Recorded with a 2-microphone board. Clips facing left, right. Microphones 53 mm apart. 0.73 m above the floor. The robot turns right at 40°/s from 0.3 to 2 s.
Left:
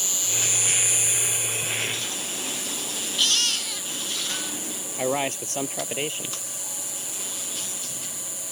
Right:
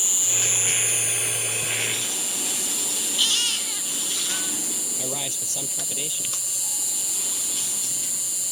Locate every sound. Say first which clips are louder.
0.0 s an insect: even; 160° right; by 8.5 s 95° right
3.2 s a baby crying: even; 5° right (ahead or behind)
5.0 s a man speaking: left 10 dB; 45° left (ahead or behind)